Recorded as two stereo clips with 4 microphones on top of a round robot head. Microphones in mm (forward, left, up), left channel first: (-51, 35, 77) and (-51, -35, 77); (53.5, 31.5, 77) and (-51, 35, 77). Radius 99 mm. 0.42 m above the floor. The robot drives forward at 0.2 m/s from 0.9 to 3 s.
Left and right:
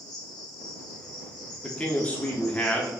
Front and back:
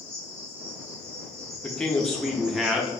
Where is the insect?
110° left, 1.1 m; by 3.0 s 125° left, 1.3 m.